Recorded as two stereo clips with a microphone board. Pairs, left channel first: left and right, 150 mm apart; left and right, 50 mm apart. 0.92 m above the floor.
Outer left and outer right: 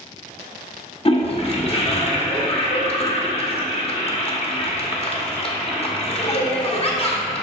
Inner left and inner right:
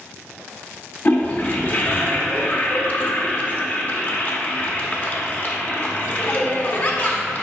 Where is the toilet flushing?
40° left (ahead or behind), 0.8 m.